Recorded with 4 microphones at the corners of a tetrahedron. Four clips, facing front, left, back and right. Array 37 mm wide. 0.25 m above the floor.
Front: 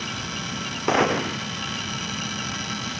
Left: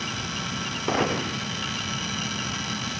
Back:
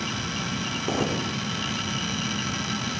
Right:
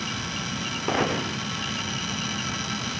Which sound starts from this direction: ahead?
A gunshot, at 0.9 s.